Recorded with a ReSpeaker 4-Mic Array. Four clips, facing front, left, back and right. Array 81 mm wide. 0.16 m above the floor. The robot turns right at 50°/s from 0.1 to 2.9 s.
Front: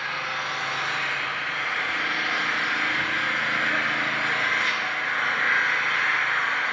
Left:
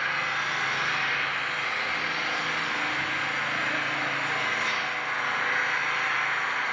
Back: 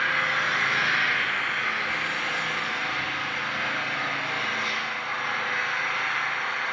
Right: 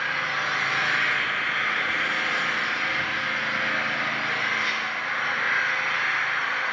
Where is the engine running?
165° right, 1.2 m; by 6.7 s 25° right, 1.2 m.